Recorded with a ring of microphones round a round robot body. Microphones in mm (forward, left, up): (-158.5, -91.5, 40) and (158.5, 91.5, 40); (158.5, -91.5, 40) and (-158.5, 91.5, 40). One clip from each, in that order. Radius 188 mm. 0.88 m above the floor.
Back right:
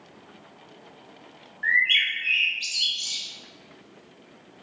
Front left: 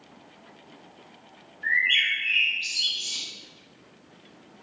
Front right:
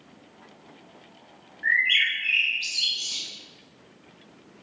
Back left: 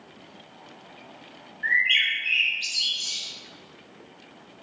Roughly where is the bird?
Behind right.